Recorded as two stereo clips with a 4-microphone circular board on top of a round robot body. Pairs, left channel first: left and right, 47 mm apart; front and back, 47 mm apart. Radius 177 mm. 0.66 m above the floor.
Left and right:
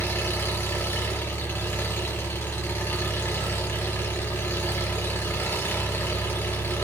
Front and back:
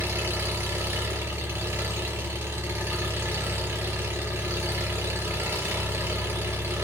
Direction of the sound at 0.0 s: 140° left.